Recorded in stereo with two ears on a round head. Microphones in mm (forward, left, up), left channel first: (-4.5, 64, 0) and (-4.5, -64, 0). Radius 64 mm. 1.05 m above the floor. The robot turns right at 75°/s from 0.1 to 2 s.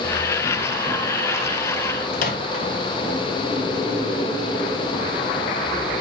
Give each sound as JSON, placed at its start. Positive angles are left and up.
{"t": 2.1, "sound": "a microwave", "side_deg": 55, "distance_m": 1.4}